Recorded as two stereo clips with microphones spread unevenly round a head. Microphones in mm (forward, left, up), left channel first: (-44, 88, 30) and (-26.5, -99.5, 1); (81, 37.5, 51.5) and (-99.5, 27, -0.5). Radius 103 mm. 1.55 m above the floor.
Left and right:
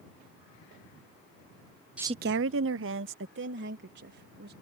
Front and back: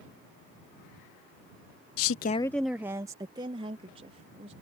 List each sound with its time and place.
2.0 s a woman speaking: straight ahead; by 4.5 s 115° right